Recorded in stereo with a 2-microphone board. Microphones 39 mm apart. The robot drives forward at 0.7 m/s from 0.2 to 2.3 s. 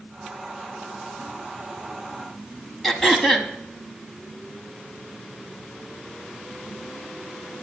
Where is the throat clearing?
10° left (ahead or behind), 1.3 m.